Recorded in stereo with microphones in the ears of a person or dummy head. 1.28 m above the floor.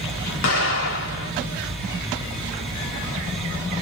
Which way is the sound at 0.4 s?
60° left (ahead or behind).